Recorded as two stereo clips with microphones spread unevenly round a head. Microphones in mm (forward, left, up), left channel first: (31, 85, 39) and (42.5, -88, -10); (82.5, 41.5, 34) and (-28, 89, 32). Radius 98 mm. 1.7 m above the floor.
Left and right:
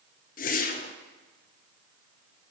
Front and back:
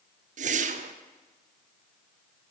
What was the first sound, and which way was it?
A whoosh, 140° left.